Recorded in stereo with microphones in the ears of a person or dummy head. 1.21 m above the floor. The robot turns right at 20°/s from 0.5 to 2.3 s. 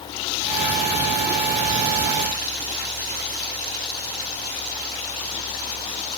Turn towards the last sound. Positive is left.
No sound to turn to.